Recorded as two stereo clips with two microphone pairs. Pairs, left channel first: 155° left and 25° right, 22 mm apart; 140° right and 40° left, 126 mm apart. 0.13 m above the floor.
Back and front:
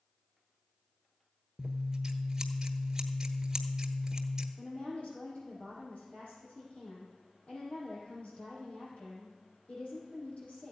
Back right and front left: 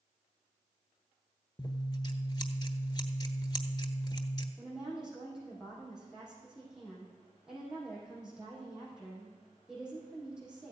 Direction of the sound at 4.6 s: 125° left.